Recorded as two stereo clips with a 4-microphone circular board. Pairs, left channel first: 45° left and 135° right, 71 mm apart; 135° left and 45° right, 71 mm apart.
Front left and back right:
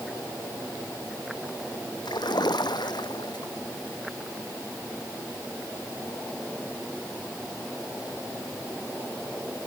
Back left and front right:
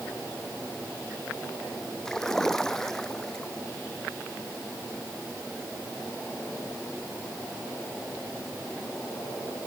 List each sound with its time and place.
2.0 s a splash: 50° left